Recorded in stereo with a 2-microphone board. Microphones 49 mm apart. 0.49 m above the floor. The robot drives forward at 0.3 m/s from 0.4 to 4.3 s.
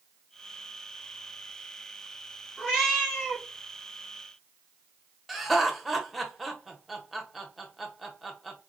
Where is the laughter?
Centre (ahead or behind), 0.8 m.